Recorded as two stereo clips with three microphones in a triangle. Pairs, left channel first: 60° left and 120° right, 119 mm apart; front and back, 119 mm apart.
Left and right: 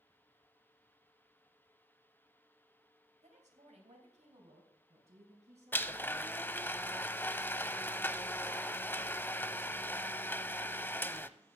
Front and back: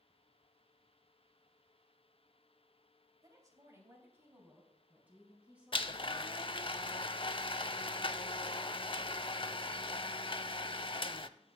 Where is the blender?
5° right, 0.5 m.